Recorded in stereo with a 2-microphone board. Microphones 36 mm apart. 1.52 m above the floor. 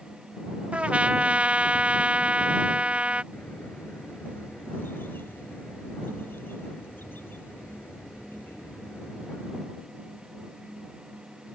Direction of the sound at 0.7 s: 35° right (ahead or behind).